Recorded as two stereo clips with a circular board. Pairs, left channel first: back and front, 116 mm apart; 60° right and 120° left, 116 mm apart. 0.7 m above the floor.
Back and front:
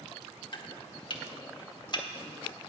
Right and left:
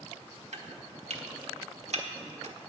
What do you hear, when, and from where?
0.5 s chopping: 135° left, 1.3 m